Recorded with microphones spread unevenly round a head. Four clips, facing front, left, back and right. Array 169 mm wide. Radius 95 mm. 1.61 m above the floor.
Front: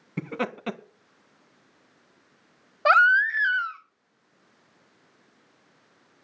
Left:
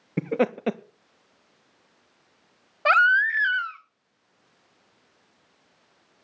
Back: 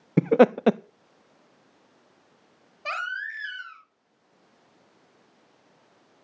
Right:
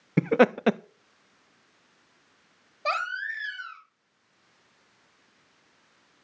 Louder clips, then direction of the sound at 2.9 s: Left 11 dB, front 14 dB; 20° left.